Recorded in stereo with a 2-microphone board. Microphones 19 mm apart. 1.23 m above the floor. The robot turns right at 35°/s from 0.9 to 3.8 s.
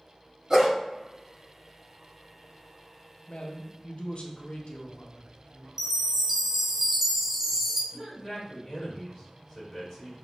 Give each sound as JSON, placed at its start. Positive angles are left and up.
{"t": 0.5, "sound": "a dog barking", "side_deg": -20, "distance_m": 1.5}
{"t": 3.3, "sound": "a man speaking", "side_deg": 80, "distance_m": 0.7}
{"t": 5.8, "sound": "a chime", "side_deg": -20, "distance_m": 0.7}
{"t": 7.9, "sound": "a man speaking", "side_deg": 30, "distance_m": 1.9}